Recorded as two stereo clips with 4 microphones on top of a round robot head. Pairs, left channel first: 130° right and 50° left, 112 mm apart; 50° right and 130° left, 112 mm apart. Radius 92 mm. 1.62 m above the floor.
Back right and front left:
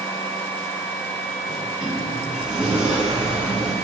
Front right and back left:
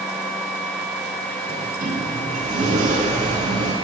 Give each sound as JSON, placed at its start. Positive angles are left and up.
{"t": 1.5, "sound": "a sliding door", "azimuth_deg": 135, "distance_m": 0.6}